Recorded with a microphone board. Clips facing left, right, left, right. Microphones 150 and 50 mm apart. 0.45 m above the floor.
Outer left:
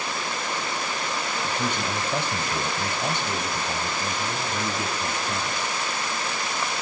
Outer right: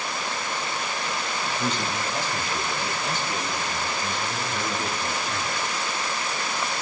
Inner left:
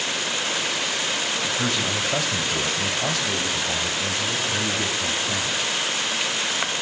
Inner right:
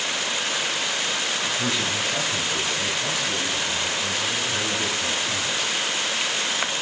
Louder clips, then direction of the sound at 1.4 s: Outer right 1 dB, inner left 1 dB; 50° left (ahead or behind).